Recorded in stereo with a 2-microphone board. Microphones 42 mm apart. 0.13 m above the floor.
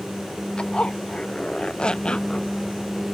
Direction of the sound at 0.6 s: 20° left (ahead or behind).